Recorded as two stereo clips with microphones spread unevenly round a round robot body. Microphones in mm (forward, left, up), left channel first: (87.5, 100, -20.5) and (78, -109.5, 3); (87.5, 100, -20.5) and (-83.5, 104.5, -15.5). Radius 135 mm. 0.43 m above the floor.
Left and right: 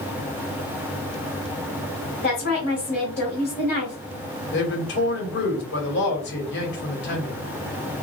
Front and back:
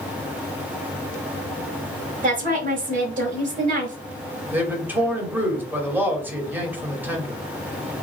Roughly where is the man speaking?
Left.